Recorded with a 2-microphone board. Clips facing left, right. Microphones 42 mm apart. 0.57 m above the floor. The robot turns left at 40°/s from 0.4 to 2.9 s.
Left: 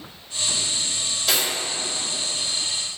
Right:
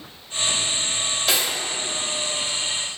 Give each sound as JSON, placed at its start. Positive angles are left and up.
{"t": 1.3, "sound": "cutlery clinking", "side_deg": -5, "distance_m": 1.1}